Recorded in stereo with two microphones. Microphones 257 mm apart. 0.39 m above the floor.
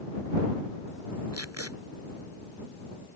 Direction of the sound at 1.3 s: 80° right.